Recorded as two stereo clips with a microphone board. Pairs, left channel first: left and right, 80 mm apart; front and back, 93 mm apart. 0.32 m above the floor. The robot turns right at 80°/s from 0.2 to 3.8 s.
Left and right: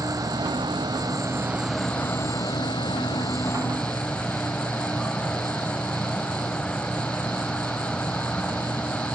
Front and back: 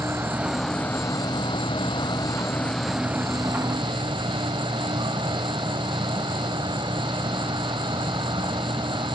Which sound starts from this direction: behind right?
An insect, at 0.0 s.